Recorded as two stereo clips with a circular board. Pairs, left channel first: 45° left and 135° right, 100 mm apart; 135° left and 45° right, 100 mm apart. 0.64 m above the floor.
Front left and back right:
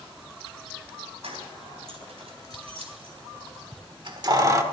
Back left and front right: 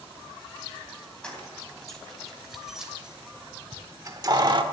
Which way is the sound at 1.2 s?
145° right.